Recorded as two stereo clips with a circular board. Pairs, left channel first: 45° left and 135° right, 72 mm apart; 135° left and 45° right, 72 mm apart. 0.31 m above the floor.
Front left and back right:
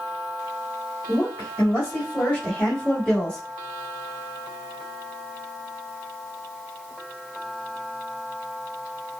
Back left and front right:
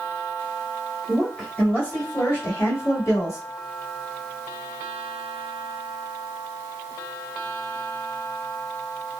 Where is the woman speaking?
60° left, 1.6 m; by 3.4 s 120° left, 2.5 m.